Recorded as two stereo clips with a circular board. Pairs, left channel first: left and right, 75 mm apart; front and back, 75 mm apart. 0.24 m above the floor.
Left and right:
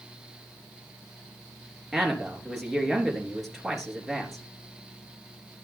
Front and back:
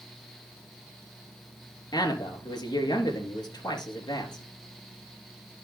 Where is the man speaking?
Straight ahead, 3 m.